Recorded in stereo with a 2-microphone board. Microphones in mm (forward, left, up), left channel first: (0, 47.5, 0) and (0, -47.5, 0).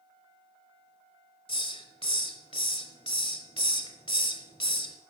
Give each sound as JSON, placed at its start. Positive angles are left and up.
{"t": 1.5, "sound": "a hiss", "side_deg": 85, "distance_m": 1.2}